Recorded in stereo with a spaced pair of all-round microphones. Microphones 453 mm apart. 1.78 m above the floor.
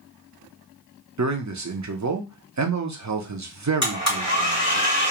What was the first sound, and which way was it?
A man speaking, 40° right (ahead or behind).